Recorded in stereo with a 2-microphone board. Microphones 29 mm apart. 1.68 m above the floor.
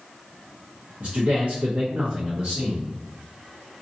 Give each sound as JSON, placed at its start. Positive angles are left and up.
{"t": 1.0, "sound": "a man speaking", "side_deg": -70, "distance_m": 1.1}